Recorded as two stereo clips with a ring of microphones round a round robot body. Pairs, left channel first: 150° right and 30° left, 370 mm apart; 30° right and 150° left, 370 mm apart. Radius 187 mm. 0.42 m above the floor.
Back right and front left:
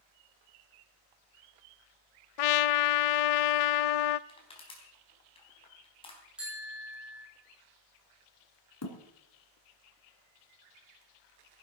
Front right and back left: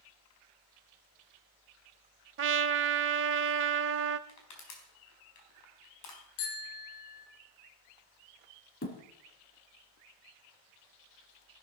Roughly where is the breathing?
I don't hear breathing.